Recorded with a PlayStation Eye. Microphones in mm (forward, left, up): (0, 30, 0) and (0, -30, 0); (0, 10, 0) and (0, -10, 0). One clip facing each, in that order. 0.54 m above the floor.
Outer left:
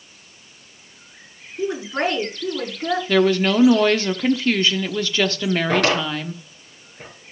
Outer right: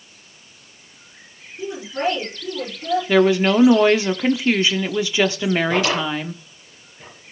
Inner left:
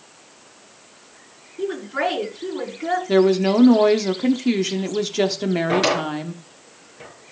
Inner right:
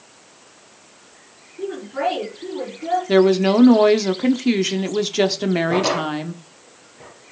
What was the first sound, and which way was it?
A woman speaking, 80° left.